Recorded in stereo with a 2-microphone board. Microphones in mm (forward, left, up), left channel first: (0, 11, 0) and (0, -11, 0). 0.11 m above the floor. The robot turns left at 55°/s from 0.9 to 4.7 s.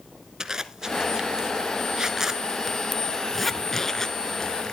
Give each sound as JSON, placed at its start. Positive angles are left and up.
{"t": 0.4, "sound": "a zipper", "side_deg": -25, "distance_m": 1.0}